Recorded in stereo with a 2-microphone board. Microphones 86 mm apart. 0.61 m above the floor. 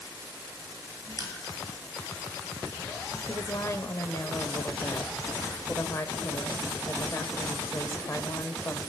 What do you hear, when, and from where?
1.2 s crushing: 40° left (ahead or behind), 9.5 m
3.3 s a woman speaking: 35° left (ahead or behind), 2.5 m